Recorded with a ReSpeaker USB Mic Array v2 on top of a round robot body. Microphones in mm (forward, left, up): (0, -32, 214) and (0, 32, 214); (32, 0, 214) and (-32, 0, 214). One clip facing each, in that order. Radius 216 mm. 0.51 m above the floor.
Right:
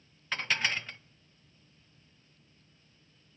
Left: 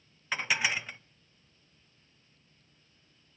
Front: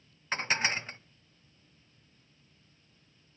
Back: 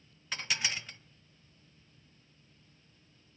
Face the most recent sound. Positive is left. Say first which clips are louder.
# left 1 dB, front 6 dB
turn(degrees=15)